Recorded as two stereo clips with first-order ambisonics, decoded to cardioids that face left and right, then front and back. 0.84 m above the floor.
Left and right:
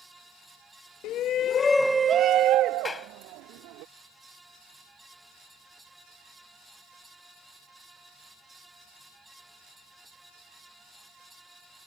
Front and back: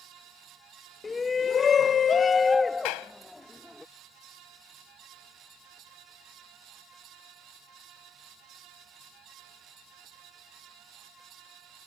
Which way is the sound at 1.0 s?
75° left.